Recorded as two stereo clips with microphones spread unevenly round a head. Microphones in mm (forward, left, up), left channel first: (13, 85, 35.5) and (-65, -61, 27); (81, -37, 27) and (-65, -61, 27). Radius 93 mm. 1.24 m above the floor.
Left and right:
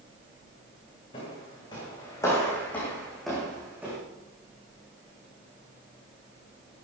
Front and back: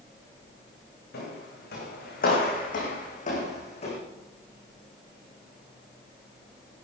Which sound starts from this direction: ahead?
Footsteps, at 1.1 s.